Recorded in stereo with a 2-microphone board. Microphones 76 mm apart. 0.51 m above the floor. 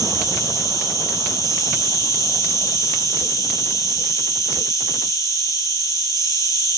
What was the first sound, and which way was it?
An insect, 45° left (ahead or behind).